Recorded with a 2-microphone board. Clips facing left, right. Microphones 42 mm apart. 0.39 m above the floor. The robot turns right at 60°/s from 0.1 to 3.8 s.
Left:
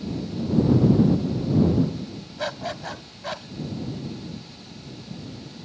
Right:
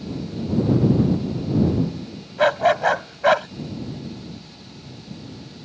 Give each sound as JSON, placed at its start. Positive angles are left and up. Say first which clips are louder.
{"t": 2.4, "sound": "a dog barking", "louder": "right 14 dB", "azimuth_deg": -135}